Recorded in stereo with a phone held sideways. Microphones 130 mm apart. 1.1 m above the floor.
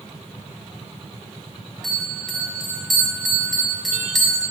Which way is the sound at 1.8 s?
Centre (ahead or behind).